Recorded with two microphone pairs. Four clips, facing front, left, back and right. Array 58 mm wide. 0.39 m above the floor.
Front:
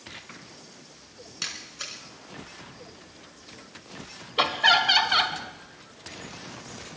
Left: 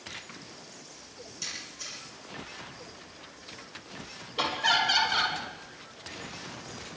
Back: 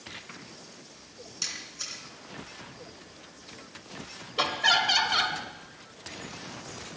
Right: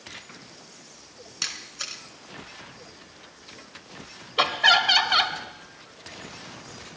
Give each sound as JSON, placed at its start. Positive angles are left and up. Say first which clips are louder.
{"t": 1.4, "sound": "a camera shutter", "louder": "right 7 dB, front 3 dB", "azimuth_deg": -55, "distance_m": 3.5}
{"t": 4.4, "sound": "laughter", "louder": "right 6 dB, front 4 dB", "azimuth_deg": -60, "distance_m": 2.0}